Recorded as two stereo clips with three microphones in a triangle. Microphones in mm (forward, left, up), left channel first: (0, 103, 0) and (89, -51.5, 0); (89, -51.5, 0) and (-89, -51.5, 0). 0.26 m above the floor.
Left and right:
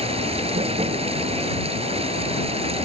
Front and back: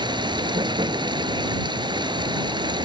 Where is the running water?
115° right.